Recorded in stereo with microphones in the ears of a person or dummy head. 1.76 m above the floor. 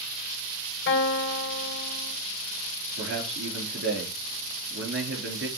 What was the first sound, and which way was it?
A guitar, 65° left (ahead or behind).